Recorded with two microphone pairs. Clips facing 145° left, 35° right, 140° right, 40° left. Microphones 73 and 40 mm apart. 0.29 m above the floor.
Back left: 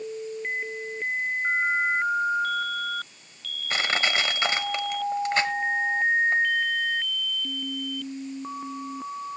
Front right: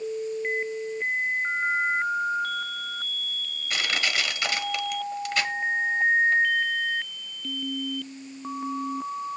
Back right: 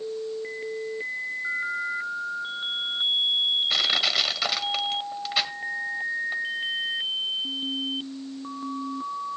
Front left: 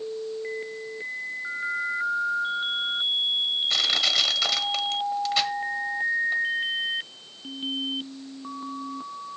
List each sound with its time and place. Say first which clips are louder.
3.7 s crushing: back left 3 dB, even; 145° left, 1.2 m